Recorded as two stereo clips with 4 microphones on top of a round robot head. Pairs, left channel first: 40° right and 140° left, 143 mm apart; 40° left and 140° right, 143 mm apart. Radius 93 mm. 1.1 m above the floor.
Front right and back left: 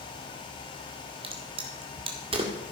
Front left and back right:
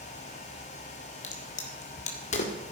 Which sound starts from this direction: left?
A crack, at 1.2 s.